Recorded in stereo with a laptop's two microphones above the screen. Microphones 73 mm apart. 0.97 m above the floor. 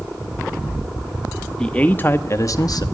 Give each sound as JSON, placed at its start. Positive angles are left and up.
{"t": 1.6, "sound": "a man speaking", "side_deg": 15, "distance_m": 1.7}